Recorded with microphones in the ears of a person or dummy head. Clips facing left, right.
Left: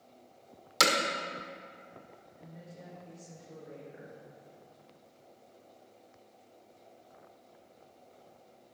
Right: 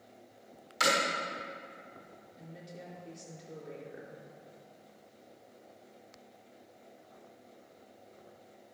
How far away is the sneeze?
No sneeze in this recording.